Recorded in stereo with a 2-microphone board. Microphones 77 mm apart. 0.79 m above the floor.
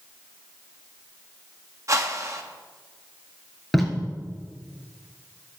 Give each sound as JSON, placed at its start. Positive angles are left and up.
{"t": 1.9, "sound": "a whoosh", "side_deg": -40, "distance_m": 1.0}
{"t": 3.7, "sound": "tape being pulled", "side_deg": 0, "distance_m": 2.5}